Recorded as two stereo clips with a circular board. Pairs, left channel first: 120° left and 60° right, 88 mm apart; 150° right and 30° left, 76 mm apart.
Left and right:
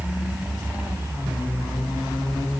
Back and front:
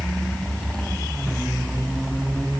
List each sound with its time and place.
Only background noise.